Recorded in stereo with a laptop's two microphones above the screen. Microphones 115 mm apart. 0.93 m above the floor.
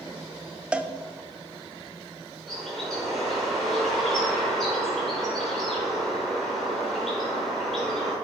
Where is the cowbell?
10° right (ahead or behind), 0.5 m.